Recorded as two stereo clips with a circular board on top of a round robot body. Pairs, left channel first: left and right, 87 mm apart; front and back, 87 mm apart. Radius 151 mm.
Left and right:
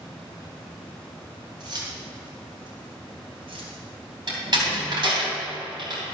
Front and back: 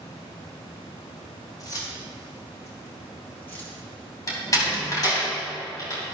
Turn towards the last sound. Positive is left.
turn(degrees=-55)